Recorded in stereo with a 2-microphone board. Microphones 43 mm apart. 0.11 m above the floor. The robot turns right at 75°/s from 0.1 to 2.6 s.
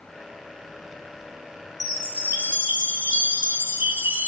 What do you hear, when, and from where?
1.8 s a chime: straight behind, 0.9 m; by 4.3 s 120° right, 0.9 m